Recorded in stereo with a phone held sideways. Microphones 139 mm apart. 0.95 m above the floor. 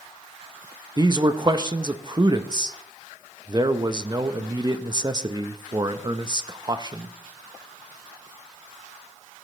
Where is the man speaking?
30° right (ahead or behind), 0.6 m.